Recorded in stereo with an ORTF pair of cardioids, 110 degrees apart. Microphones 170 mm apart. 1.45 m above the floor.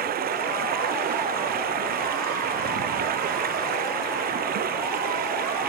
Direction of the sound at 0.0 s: 60° right.